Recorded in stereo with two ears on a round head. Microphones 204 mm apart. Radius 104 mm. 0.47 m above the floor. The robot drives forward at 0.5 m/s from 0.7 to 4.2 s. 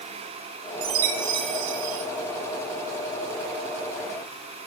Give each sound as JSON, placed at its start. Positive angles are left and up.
{"t": 0.8, "sound": "a chime", "side_deg": -55, "distance_m": 0.9}